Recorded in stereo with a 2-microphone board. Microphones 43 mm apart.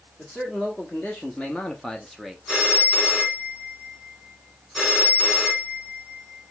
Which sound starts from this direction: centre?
A phone ringing, at 2.5 s.